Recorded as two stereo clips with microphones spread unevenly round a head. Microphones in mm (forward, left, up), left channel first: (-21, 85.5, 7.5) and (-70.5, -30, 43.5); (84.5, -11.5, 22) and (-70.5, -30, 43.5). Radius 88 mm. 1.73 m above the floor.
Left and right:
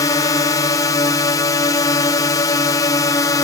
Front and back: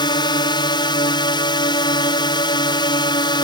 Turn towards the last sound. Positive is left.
turn(degrees=45)